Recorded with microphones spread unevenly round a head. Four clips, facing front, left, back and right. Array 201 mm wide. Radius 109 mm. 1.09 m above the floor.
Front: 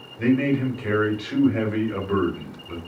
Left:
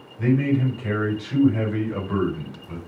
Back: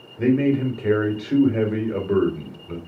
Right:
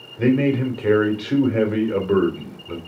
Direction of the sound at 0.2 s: 115° right.